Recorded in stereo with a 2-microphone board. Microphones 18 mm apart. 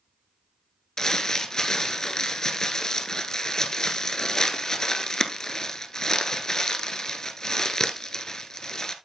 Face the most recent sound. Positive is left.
turn(degrees=40)  # may be behind; listen again after turning